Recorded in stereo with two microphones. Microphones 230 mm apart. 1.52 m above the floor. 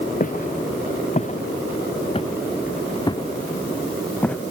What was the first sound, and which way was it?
Footsteps, 40° left (ahead or behind).